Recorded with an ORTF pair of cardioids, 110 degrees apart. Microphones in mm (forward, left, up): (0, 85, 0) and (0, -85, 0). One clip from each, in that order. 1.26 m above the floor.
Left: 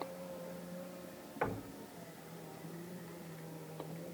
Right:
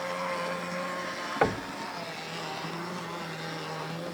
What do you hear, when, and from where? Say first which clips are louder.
1.4 s knocking: right 11 dB; 60° right, 0.7 m